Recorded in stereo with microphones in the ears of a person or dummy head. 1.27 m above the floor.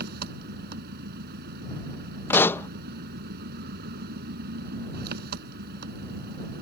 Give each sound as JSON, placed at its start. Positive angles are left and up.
{"t": 0.0, "sound": "an engine running", "side_deg": -55}
{"t": 2.3, "sound": "a pop", "side_deg": 15}